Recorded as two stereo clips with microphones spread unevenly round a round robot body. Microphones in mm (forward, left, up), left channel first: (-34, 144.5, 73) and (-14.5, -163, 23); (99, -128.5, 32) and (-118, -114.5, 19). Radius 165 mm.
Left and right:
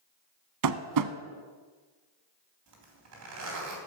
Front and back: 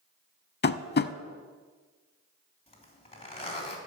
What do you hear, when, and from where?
0.6 s tapping: 50° right, 0.8 m
2.7 s a zipper: 65° right, 3.5 m